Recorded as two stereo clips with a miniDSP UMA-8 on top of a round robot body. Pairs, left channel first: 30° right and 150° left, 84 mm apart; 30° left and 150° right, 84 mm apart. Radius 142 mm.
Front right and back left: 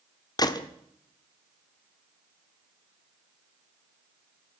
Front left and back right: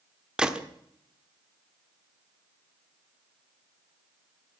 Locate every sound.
0.4 s a gunshot: 70° right, 1.3 m